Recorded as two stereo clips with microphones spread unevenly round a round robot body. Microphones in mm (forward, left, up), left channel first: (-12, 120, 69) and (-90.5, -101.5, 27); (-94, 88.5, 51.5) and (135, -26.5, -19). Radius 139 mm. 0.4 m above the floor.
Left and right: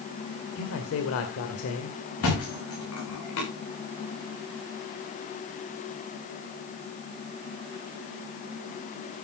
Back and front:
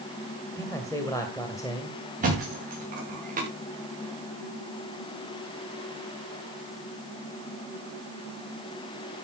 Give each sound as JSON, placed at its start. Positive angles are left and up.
{"t": 0.6, "sound": "a man speaking", "azimuth_deg": 65, "distance_m": 2.0}
{"t": 2.2, "sound": "a thud", "azimuth_deg": 30, "distance_m": 9.5}